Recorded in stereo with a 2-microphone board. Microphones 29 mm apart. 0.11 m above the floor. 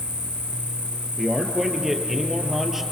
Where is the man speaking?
5° right (ahead or behind), 3 m.